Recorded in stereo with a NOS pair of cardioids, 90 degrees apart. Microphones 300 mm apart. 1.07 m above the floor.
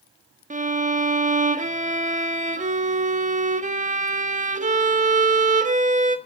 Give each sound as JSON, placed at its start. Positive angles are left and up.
{"t": 0.5, "sound": "a violin", "azimuth_deg": -25, "distance_m": 1.5}